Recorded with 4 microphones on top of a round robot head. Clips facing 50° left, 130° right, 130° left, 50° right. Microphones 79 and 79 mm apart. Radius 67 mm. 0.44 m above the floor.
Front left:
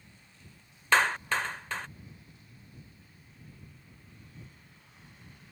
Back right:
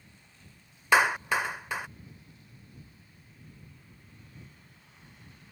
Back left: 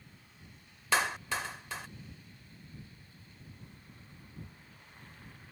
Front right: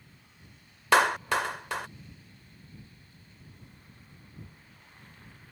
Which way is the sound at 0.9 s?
55° right.